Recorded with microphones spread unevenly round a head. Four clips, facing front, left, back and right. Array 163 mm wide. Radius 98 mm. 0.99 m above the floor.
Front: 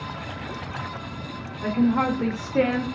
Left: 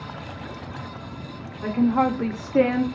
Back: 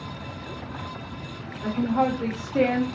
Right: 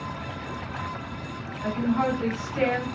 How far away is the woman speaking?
About 1.0 m.